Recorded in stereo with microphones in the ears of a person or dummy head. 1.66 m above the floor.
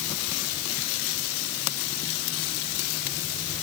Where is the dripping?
I don't hear dripping.